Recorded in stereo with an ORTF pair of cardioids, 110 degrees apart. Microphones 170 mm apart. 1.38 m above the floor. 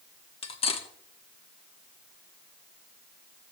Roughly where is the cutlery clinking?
Ahead left.